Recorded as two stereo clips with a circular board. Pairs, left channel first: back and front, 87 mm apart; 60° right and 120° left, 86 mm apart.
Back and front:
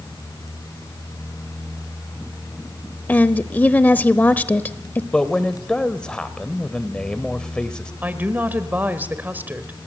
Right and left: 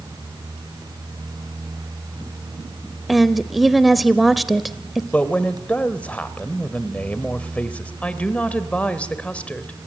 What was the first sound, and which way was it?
A woman speaking, 150° right.